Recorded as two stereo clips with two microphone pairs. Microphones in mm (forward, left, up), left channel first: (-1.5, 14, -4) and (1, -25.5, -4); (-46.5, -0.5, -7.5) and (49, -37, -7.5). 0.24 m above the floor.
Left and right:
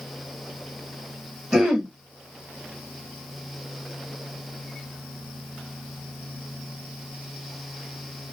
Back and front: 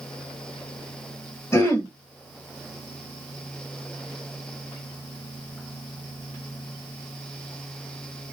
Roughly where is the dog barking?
No dog barking in this recording.